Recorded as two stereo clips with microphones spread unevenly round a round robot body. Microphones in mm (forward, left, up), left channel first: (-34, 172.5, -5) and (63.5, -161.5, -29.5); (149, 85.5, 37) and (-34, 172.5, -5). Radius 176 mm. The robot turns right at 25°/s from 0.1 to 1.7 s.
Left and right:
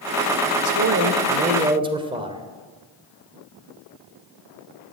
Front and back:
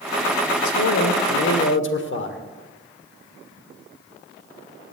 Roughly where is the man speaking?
Ahead right.